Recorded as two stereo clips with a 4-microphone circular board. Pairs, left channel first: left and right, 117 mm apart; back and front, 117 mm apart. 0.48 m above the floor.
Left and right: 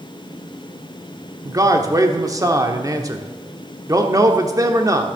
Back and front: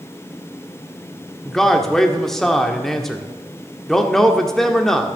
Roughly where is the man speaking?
Right.